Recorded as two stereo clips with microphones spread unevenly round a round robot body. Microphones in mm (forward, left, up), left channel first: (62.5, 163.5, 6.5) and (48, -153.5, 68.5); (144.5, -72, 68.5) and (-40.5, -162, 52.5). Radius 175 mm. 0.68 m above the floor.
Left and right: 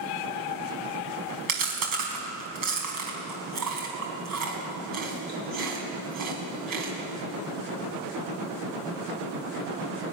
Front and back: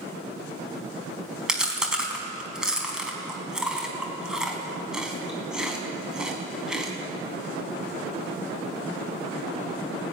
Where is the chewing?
65° right, 4.5 m.